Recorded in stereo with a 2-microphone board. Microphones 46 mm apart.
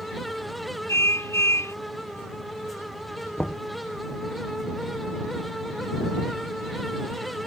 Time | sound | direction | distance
0.9 | a car horn | 80° left | ?
3.4 | knocking | 35° left (ahead or behind) | ?